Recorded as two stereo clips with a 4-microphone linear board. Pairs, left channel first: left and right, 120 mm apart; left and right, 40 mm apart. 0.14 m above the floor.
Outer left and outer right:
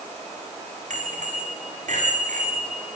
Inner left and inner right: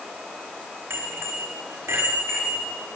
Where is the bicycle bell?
80° right, 7.5 m.